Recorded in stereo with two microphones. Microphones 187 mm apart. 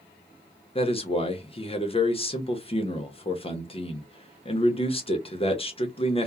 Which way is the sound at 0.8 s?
30° left (ahead or behind).